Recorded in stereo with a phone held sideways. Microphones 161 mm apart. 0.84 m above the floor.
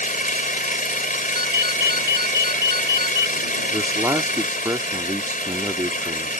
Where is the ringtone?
80° right.